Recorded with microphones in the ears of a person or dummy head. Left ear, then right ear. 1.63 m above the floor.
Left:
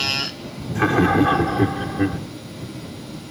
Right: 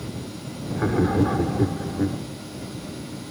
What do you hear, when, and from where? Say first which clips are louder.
0.8 s laughter: left 5 dB; 75° left (ahead or behind)